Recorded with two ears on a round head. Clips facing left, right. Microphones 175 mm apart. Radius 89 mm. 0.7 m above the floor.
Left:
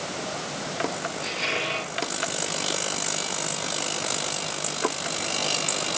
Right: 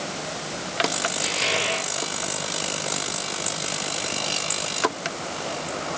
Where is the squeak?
70° right (ahead or behind), 8.5 m.